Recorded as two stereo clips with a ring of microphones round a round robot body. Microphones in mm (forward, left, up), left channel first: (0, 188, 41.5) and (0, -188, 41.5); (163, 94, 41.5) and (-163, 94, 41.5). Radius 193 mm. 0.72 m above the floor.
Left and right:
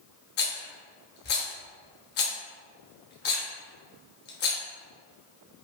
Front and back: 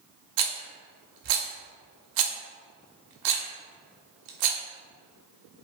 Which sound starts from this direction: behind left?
A rattle, at 0.4 s.